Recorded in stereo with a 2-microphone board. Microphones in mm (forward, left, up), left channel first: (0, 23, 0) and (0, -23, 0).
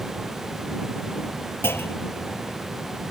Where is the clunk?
60° left (ahead or behind).